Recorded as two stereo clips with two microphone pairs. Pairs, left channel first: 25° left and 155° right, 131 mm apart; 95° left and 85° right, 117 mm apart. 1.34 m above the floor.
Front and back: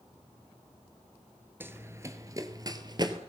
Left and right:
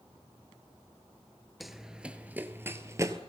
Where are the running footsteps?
175° right, 1.3 m; by 3.2 s 125° right, 1.7 m.